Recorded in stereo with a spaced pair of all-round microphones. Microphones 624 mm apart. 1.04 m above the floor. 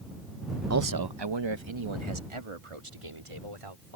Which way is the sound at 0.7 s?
25° right (ahead or behind).